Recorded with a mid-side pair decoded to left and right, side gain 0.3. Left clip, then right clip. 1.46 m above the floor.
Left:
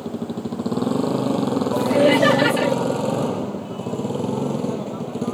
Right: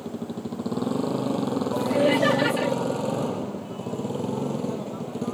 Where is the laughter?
50° left.